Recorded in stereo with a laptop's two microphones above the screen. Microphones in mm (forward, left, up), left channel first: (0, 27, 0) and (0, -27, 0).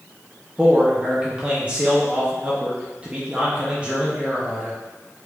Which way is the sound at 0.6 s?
25° right (ahead or behind).